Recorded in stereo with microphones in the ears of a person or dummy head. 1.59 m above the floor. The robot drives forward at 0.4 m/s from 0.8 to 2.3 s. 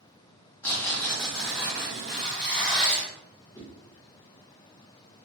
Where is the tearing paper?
10° left (ahead or behind), 0.5 m; by 3.1 s 5° left (ahead or behind), 0.9 m.